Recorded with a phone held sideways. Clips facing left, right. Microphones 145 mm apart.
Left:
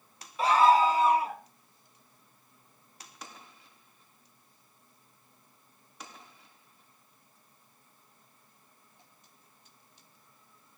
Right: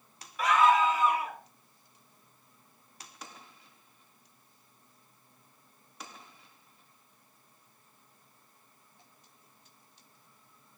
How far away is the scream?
About 0.6 m.